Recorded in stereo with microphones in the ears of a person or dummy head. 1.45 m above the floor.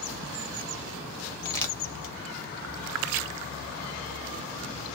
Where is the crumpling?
15° left (ahead or behind), 1.3 m.